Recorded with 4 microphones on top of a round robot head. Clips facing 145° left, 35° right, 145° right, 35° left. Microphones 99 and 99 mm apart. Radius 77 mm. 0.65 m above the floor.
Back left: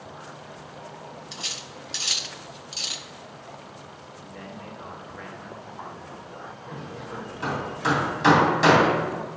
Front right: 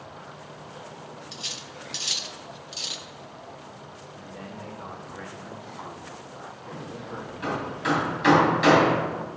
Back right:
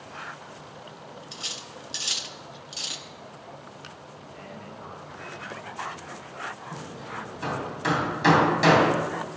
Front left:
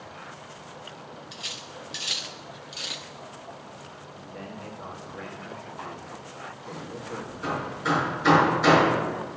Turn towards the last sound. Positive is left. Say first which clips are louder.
# even, front left 1 dB
turn(degrees=-155)